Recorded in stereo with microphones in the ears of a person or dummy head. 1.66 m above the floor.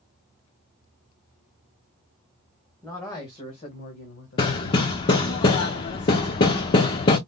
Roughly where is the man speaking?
Centre.